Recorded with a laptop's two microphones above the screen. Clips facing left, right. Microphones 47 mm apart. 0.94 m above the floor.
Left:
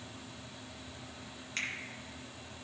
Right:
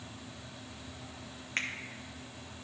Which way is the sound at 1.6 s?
35° right (ahead or behind).